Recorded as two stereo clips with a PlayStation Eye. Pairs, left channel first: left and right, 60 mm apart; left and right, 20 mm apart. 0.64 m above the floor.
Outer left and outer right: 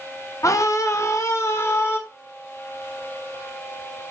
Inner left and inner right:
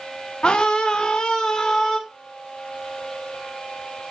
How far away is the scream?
About 1.2 m.